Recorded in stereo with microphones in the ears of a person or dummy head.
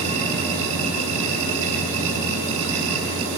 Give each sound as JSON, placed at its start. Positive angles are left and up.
{"t": 0.0, "sound": "a machine running", "side_deg": -85, "distance_m": 6.0}